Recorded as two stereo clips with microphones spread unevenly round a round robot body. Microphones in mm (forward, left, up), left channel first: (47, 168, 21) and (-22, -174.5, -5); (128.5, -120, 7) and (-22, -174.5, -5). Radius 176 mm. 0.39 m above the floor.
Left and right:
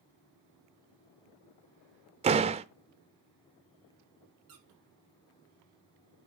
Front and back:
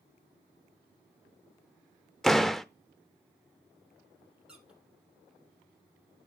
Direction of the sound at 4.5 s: 75° right.